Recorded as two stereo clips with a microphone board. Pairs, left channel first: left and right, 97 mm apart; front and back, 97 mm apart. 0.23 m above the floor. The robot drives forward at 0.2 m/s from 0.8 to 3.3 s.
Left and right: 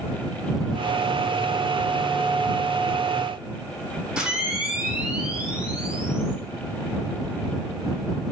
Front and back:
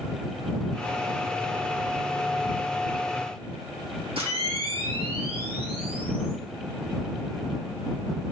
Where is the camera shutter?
170° right, 3 m.